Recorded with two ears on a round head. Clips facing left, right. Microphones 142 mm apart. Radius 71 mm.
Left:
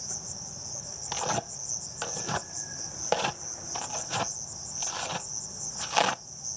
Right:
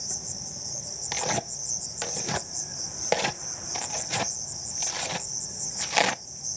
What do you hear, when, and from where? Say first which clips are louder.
0.0 s an insect: right 2 dB; 20° right (ahead or behind)
1.1 s tearing paper: right 1 dB; 15° right (ahead or behind)